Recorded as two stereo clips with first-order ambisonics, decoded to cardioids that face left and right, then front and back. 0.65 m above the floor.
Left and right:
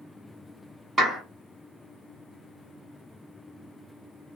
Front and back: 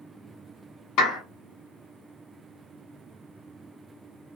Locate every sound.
1.0 s a clap: 20° right, 1.4 m